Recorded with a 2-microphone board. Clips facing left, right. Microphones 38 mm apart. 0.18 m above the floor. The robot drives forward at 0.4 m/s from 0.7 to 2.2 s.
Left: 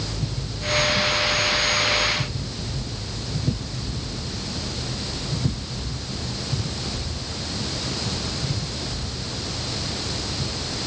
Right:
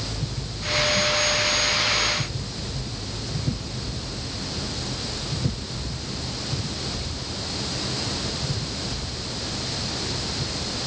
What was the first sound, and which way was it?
Only background noise.